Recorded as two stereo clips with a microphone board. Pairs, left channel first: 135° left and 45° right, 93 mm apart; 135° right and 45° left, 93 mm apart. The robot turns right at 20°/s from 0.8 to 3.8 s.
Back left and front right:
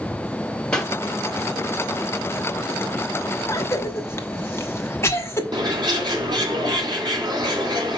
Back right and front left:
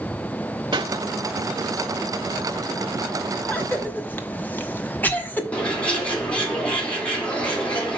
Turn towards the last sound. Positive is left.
turn(degrees=-60)